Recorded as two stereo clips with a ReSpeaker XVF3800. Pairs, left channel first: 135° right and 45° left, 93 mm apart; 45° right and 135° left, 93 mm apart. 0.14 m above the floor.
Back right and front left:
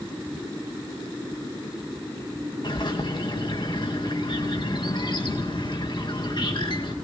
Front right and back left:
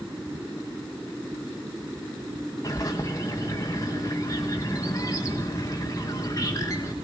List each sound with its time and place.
2.6 s a bird: 100° right, 4 m